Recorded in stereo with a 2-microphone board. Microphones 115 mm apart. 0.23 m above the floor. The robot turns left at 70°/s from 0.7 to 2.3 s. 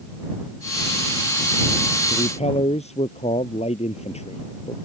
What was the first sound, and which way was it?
A man speaking, 75° left (ahead or behind).